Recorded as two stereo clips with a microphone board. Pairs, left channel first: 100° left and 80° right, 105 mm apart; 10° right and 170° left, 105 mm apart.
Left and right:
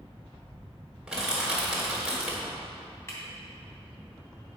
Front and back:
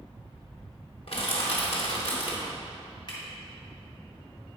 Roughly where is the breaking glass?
Ahead left.